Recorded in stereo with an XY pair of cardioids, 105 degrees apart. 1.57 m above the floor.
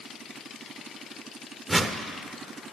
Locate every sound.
1.7 s a whoosh: 20° right, 0.9 m